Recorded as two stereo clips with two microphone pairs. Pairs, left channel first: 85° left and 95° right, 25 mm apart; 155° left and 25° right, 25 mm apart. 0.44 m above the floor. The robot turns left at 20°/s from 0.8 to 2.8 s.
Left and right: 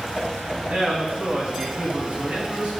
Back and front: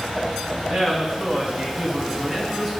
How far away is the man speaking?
About 2.5 m.